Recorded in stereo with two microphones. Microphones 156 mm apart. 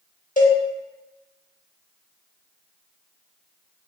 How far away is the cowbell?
About 0.8 m.